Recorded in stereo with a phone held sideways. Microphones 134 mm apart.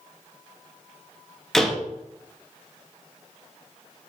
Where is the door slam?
5° left (ahead or behind), 0.6 m.